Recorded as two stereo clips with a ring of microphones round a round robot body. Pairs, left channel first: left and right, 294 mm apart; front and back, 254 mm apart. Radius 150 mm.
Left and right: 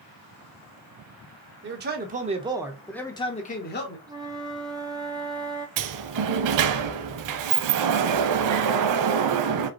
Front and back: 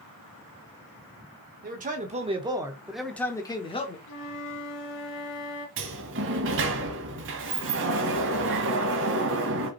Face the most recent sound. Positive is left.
turn(degrees=-125)